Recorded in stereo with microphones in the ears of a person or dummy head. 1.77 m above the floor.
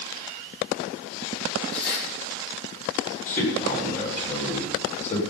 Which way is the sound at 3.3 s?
40° left (ahead or behind).